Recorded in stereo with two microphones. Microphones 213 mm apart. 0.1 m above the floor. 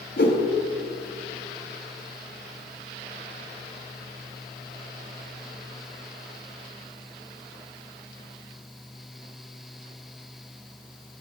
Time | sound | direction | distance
0.2 | a whoosh | 50° left (ahead or behind) | 1.2 m